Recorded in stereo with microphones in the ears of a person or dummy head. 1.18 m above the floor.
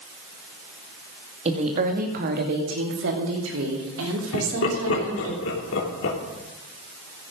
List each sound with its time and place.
1.4 s a woman speaking: 30° right (ahead or behind), 1.9 m; by 5.3 s 85° right, 4 m
4.3 s laughter: 80° left, 3 m